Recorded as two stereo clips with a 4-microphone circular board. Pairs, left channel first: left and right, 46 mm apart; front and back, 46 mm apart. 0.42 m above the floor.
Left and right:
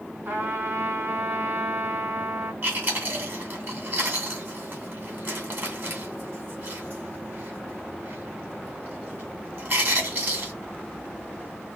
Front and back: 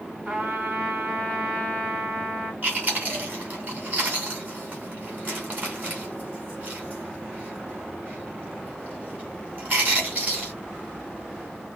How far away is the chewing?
About 2 m.